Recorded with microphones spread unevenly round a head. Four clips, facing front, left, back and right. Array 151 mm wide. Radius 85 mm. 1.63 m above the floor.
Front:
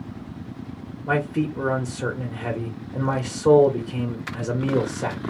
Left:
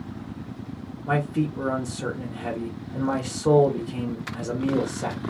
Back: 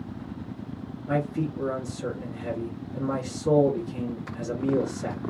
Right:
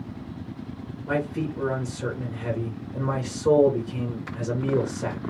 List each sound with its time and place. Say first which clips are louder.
1.1 s a man speaking: left 2 dB, front 4 dB; 15° left, 1.3 m